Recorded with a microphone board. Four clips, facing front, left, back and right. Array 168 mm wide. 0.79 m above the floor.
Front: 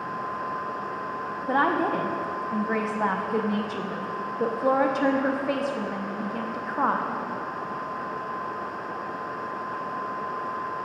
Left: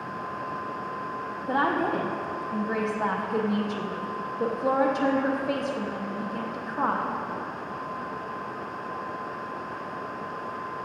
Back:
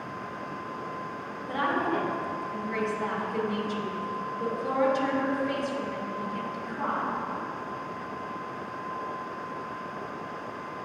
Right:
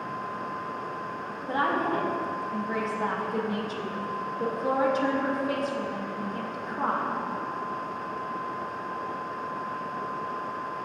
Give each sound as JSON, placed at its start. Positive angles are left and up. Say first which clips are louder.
{"t": 1.5, "sound": "a woman speaking", "louder": "left 1 dB, front 4 dB", "azimuth_deg": 20, "distance_m": 0.8}